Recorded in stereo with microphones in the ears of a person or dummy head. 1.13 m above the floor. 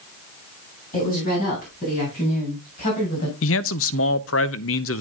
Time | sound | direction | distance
0.9 | a woman speaking | 45° left (ahead or behind) | 10 m
3.4 | a man speaking | 60° left (ahead or behind) | 0.6 m